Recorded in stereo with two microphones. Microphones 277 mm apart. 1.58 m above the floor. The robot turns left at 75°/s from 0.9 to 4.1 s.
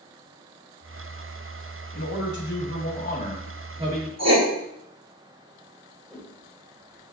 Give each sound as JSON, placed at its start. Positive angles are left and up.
{"t": 1.9, "sound": "a man speaking", "azimuth_deg": 120, "distance_m": 3.0}
{"t": 4.2, "sound": "writing", "side_deg": -65, "distance_m": 2.5}
{"t": 6.1, "sound": "a whoosh", "side_deg": 0, "distance_m": 3.0}